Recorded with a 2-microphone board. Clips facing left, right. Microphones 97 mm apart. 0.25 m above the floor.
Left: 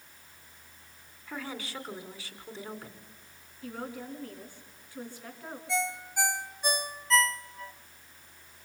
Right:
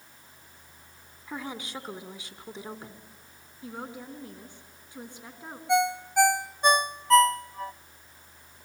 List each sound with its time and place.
1.3 s a woman speaking: 20° right (ahead or behind), 2.0 m
3.6 s a woman speaking: 20° right (ahead or behind), 3 m
5.7 s a ringtone: 55° right (ahead or behind), 0.6 m